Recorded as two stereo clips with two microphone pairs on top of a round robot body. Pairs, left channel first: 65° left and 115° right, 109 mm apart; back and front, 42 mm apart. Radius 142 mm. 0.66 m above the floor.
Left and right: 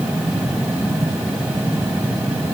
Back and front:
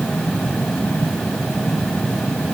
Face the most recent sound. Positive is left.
No sound to turn to.